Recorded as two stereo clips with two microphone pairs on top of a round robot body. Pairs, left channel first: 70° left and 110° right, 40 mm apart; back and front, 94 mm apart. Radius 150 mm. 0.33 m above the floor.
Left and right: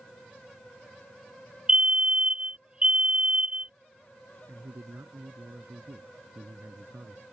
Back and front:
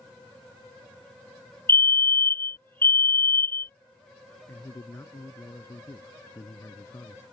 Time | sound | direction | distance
1.7 | a fire alarm | 175° right | ?
4.5 | a man speaking | 120° right | ?